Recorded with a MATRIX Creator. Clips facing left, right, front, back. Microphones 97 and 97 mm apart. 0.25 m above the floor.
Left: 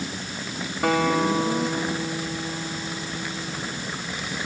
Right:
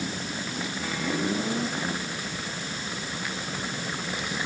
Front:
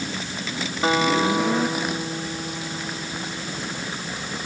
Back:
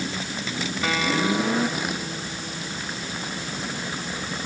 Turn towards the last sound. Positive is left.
turn(degrees=60)